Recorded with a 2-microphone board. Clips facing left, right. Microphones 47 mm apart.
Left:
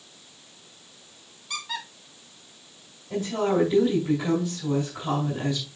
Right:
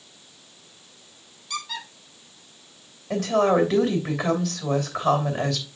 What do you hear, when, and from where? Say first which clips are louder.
1.5 s a squeak: right 1 dB; 20° left (ahead or behind), 3 m
3.1 s a woman speaking: right 5 dB; 75° right (ahead or behind), 2.5 m